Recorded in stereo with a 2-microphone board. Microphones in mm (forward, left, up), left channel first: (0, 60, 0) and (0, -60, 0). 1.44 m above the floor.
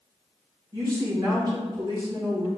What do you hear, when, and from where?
0.7 s a woman speaking: 30° right (ahead or behind), 1.2 m